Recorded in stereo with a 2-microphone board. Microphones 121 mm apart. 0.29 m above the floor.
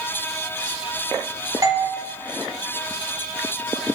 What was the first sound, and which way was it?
A doorbell, 30° right (ahead or behind).